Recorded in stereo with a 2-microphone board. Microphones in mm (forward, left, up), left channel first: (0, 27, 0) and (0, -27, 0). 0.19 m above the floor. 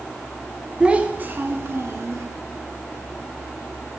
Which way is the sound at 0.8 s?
20° right (ahead or behind).